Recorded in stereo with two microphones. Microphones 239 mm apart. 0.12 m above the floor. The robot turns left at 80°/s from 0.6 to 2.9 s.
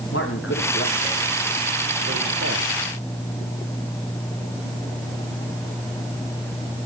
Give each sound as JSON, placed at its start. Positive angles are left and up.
{"t": 0.1, "sound": "a man speaking", "side_deg": 65, "distance_m": 7.5}